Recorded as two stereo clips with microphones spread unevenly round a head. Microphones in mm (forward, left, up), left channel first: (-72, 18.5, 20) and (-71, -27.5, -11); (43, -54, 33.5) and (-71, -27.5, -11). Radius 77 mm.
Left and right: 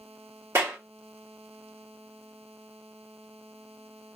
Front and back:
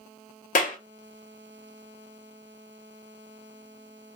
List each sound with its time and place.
0.6 s a clap: 25° right, 1.1 m